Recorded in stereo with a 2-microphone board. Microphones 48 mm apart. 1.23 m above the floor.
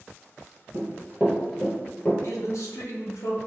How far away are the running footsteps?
About 1.6 m.